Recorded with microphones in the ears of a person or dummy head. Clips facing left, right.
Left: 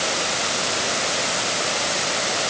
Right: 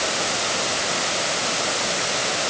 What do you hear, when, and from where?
Only background noise.